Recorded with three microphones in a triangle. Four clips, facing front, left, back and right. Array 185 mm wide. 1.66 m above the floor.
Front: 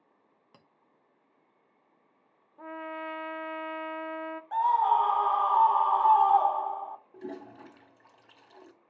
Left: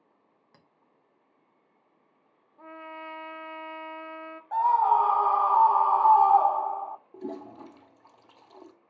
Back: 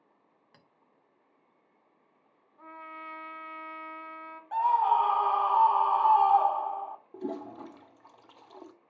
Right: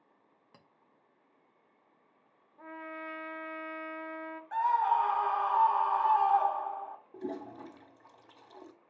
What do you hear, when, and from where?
0.5 s a clink: 15° right, 0.9 m
2.6 s a trumpet: 5° left, 0.6 m
4.5 s a scream: 85° left, 0.6 m
7.1 s a toilet flushing: 165° left, 0.9 m